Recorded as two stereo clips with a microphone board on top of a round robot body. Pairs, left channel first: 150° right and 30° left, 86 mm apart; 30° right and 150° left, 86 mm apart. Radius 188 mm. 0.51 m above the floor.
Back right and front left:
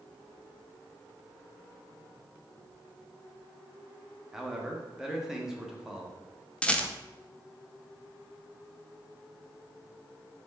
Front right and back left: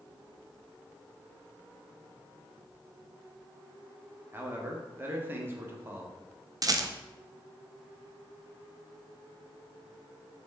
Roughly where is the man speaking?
Left.